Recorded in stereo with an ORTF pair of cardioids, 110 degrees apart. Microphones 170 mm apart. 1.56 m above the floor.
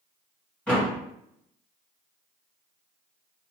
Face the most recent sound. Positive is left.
turn(degrees=5)